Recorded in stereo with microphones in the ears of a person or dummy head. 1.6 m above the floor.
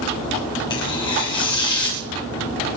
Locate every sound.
0.7 s tearing paper: 30° left (ahead or behind), 1.5 m